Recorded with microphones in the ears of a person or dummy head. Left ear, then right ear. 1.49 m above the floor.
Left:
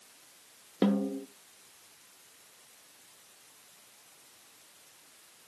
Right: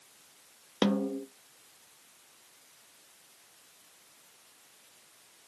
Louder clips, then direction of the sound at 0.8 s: Right 1 dB; 35° right (ahead or behind).